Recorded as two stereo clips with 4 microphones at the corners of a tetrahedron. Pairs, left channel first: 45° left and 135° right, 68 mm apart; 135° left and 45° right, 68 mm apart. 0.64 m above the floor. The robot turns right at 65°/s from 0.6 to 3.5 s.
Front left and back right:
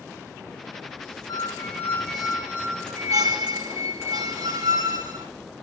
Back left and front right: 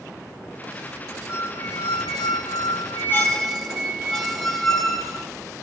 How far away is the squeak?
About 3.5 m.